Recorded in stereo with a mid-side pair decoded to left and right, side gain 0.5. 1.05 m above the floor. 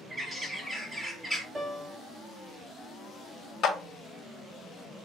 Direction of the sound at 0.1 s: 25° right.